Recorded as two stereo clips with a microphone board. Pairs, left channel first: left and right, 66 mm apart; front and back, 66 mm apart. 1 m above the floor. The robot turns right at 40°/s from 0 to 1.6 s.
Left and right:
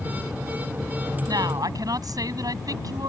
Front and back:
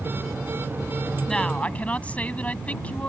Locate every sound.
1.3 s a woman speaking: 80° right; by 3.1 s 70° right